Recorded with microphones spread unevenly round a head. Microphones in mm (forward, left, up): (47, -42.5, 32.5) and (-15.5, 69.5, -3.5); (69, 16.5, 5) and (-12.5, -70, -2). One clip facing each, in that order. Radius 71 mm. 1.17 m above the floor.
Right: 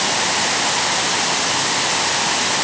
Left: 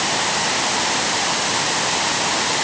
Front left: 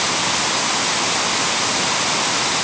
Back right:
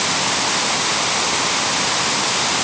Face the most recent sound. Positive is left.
No sound to turn to.